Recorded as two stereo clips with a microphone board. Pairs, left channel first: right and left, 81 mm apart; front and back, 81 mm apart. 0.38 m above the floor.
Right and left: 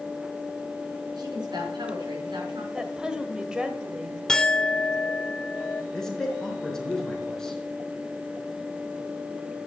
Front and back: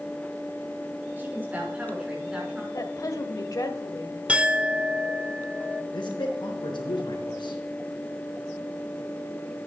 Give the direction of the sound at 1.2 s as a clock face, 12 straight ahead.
8 o'clock.